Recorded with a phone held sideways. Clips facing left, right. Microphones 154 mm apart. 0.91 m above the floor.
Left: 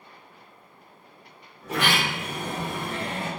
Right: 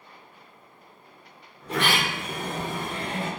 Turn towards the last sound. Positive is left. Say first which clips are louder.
# even
turn(degrees=5)  # may be behind; listen again after turning